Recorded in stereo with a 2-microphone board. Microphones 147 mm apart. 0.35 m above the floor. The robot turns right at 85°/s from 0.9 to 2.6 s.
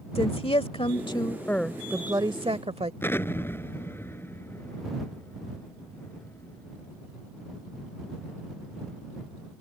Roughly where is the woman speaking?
Left.